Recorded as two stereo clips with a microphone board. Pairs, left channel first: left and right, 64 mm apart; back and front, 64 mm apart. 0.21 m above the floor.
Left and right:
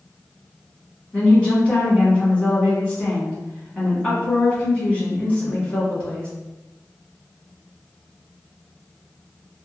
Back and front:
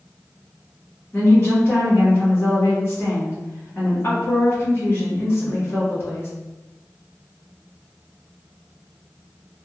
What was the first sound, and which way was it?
A woman speaking, 155° left.